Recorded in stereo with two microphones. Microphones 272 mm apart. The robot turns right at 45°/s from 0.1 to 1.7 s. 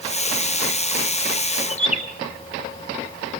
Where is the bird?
25° left (ahead or behind), 2 m.